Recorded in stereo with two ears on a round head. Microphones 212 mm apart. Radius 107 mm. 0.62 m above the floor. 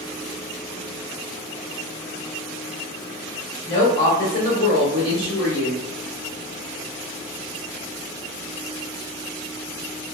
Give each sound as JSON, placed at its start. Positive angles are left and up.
{"t": 3.7, "sound": "a woman speaking", "side_deg": 20, "distance_m": 0.9}